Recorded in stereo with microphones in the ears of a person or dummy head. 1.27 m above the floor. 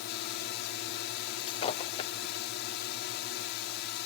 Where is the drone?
60° left (ahead or behind).